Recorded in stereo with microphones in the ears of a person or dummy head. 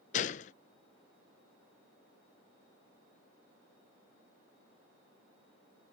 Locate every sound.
0.1 s a gunshot: 40° left (ahead or behind)